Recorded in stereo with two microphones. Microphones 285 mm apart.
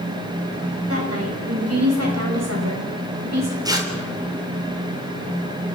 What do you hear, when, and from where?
0.9 s a woman speaking: 55° right (ahead or behind), 10 m; by 3.5 s 70° right (ahead or behind), 9.5 m
3.6 s tearing paper: 15° right (ahead or behind), 3.5 m